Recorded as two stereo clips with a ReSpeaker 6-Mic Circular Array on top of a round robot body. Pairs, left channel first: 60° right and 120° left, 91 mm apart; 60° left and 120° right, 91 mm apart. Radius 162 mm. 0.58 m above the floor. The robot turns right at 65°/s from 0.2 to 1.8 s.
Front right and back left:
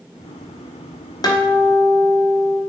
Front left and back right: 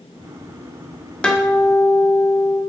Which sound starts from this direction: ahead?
A guitar, at 1.2 s.